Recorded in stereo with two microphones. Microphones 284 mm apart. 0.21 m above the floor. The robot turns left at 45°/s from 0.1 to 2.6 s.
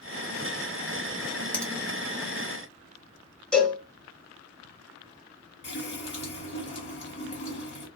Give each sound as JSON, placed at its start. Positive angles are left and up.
{"t": 1.5, "sound": "a finger snap", "side_deg": 5, "distance_m": 1.0}
{"t": 3.5, "sound": "a cowbell", "side_deg": 5, "distance_m": 1.8}
{"t": 5.6, "sound": "a running tap", "side_deg": 45, "distance_m": 2.0}